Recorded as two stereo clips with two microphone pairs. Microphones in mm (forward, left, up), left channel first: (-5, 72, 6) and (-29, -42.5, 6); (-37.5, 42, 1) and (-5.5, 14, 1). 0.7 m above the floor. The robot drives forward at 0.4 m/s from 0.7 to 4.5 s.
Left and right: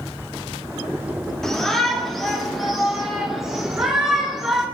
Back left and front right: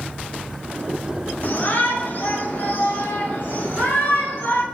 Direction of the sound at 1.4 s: 160° left.